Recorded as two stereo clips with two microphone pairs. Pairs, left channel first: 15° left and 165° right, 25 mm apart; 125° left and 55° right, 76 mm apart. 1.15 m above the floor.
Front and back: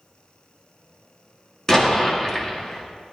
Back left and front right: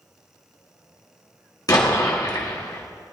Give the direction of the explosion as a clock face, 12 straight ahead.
9 o'clock.